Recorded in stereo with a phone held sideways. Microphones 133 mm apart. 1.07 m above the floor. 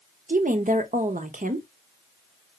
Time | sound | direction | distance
0.3 | a woman speaking | 80° right | 0.7 m